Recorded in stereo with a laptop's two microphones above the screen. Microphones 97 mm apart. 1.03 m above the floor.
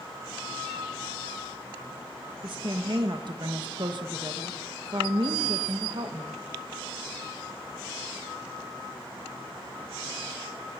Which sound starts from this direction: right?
A woman speaking, at 2.4 s.